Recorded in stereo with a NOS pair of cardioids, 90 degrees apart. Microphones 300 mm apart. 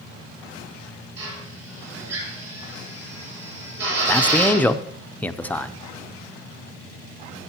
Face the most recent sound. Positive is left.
turn(degrees=5)